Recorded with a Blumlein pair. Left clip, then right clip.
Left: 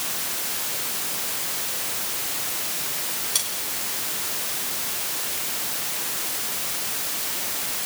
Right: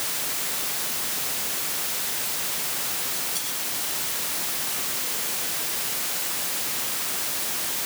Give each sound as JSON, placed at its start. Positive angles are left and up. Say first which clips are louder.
{"t": 3.4, "sound": "cutlery clinking", "louder": "left 5 dB", "azimuth_deg": 30, "distance_m": 5.5}